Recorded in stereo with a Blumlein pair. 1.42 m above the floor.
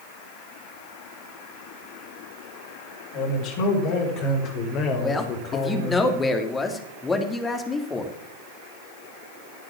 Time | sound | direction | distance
3.1 | a man speaking | 45° left | 6 m
5.0 | a man speaking | 15° left | 3 m